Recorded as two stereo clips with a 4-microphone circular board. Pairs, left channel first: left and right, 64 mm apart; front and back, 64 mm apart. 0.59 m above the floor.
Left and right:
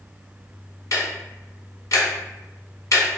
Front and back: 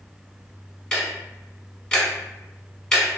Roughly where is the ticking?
Left.